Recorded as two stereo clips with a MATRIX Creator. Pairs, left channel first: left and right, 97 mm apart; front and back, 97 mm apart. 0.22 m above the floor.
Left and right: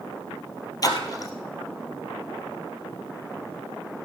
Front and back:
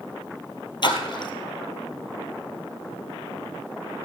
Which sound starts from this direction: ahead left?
A splash, at 0.8 s.